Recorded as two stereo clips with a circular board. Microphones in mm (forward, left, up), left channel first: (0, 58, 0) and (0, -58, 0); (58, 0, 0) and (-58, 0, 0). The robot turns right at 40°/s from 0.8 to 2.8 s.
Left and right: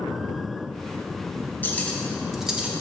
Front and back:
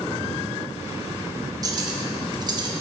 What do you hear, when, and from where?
1.6 s cutlery clinking: 155° left, 0.9 m; by 2.7 s 165° right, 0.9 m